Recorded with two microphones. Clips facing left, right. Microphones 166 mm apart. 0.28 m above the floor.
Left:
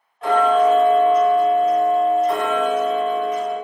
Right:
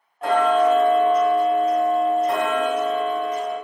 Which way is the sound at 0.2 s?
35° right (ahead or behind).